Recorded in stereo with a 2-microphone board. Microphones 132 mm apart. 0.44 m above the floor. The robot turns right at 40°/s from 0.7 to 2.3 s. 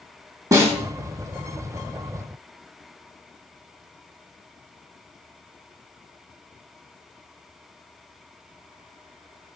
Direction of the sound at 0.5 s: 25° right (ahead or behind).